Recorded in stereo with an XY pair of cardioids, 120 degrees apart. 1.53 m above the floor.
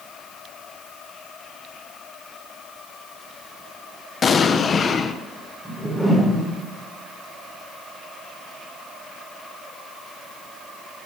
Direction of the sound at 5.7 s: Straight ahead.